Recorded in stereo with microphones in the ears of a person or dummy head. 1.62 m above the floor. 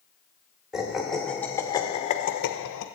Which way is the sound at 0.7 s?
Centre (ahead or behind).